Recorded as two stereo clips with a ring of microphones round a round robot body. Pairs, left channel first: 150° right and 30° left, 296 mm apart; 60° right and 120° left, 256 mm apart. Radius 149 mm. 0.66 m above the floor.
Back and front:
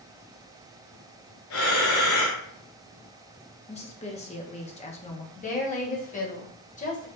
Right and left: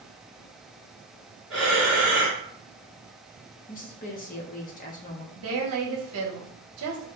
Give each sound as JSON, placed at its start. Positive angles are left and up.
{"t": 1.5, "sound": "breathing", "azimuth_deg": -150, "distance_m": 1.8}
{"t": 3.7, "sound": "a woman speaking", "azimuth_deg": -95, "distance_m": 0.7}
{"t": 5.3, "sound": "a woman speaking", "azimuth_deg": 145, "distance_m": 1.0}